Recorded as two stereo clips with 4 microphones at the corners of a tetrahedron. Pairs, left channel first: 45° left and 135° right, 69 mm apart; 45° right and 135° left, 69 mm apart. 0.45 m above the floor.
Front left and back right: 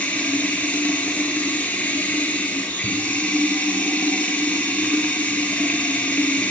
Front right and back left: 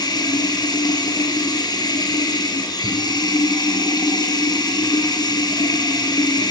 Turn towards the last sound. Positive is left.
turn(degrees=-20)